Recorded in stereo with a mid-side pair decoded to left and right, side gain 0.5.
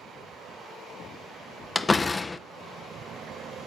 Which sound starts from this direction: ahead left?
A door slam, at 1.8 s.